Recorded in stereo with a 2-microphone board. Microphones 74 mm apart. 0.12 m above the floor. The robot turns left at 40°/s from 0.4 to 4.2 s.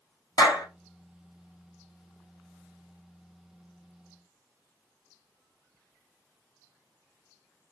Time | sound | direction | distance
0.4 | a clap | 65° left (ahead or behind) | 2.5 m